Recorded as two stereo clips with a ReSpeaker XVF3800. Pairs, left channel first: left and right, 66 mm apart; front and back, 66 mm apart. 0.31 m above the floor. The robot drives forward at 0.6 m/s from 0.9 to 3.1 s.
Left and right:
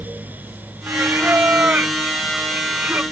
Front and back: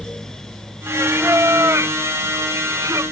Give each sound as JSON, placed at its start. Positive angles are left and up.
{"t": 0.9, "sound": "singing", "azimuth_deg": -140}